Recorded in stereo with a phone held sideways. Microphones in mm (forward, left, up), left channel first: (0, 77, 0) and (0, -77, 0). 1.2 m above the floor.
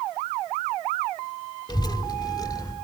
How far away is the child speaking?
About 2 m.